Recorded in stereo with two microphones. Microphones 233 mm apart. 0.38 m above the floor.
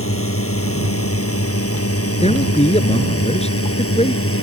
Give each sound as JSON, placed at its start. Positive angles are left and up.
{"t": 0.0, "sound": "a drone", "side_deg": 70}
{"t": 2.2, "sound": "a man speaking", "side_deg": 30}